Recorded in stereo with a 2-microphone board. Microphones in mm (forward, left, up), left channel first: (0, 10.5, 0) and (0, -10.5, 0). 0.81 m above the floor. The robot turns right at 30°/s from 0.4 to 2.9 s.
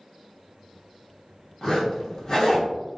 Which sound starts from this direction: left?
A zipper, at 1.6 s.